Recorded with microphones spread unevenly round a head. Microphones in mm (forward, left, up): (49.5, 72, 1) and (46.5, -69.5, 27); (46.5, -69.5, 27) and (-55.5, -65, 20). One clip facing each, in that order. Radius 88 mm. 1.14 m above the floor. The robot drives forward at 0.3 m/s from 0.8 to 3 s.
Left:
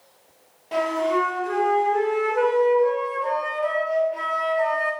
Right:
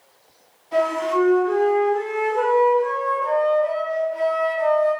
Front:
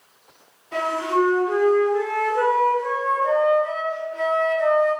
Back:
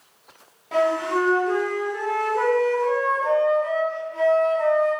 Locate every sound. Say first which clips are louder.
0.7 s a flute: right 2 dB, back 1 dB; 135° left, 2.5 m; by 4.9 s 140° left, 3 m